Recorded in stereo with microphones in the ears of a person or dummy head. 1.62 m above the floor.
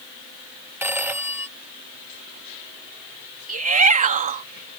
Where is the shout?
35° right (ahead or behind).